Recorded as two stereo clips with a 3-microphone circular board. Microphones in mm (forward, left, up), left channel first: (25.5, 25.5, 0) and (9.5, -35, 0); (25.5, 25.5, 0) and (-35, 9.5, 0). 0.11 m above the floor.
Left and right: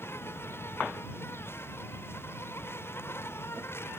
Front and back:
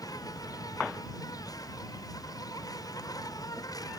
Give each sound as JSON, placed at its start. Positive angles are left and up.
{"t": 0.0, "sound": "an insect", "azimuth_deg": 25}